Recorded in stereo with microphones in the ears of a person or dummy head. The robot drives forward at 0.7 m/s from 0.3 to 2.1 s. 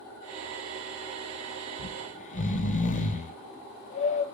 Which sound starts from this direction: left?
Snoring, at 1.8 s.